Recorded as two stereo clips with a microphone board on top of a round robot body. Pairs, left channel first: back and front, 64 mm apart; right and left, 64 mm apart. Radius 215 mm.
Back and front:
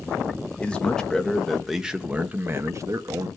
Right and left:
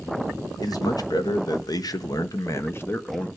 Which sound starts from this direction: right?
A man speaking, at 0.6 s.